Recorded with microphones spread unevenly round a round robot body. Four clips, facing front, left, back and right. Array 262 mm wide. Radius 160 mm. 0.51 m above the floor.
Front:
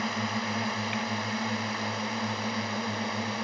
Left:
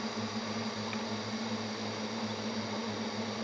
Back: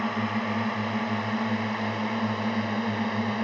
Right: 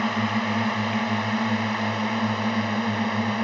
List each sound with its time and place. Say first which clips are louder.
0.0 s a drone: right 12 dB, back 3 dB; 85° right; by 3.4 s 95° right